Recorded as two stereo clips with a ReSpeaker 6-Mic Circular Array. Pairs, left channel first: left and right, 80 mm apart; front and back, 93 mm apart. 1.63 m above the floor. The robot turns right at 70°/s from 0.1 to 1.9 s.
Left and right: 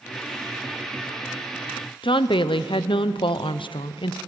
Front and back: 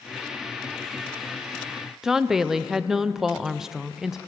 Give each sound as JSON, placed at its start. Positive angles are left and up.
{"t": 2.0, "sound": "a woman speaking", "azimuth_deg": 95, "distance_m": 0.8}